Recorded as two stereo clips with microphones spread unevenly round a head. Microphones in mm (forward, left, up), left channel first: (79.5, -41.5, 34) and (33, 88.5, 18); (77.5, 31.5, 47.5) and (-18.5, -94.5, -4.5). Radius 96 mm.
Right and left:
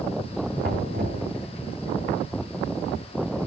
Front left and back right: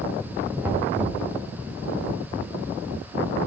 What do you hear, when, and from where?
0.6 s knocking: 150° left, 3.5 m